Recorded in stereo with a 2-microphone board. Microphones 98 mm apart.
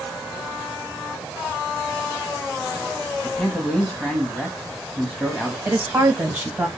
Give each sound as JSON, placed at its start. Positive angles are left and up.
{"t": 3.2, "sound": "a man speaking", "side_deg": 5, "distance_m": 1.2}
{"t": 5.7, "sound": "a woman speaking", "side_deg": -20, "distance_m": 1.2}